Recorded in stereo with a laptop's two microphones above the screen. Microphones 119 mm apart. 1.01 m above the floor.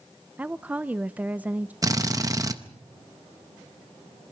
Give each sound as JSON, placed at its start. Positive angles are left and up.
{"t": 0.4, "sound": "a woman speaking", "side_deg": -15, "distance_m": 0.5}
{"t": 1.8, "sound": "a drill", "side_deg": -30, "distance_m": 0.7}